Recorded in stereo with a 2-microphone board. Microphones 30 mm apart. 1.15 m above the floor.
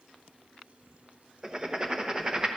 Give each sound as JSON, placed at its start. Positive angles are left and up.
{"t": 1.4, "sound": "writing", "side_deg": -25, "distance_m": 0.9}